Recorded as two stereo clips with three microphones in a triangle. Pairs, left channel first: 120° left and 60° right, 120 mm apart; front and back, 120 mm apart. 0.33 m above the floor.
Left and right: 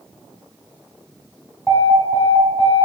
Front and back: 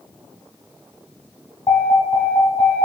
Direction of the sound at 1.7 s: 40° left.